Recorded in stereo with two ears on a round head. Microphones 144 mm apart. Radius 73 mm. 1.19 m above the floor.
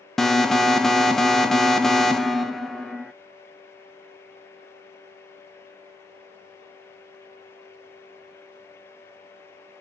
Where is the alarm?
5° left (ahead or behind), 0.9 m.